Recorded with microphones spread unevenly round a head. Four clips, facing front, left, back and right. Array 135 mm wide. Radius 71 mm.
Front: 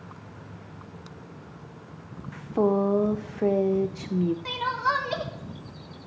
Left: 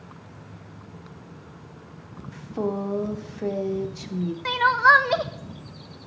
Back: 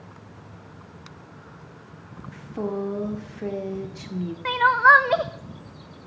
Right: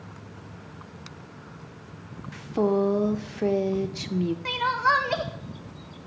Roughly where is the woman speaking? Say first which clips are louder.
Right 4 dB, front 6 dB; ahead.